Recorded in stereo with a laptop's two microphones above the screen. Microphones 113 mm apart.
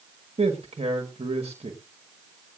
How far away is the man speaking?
About 1.5 m.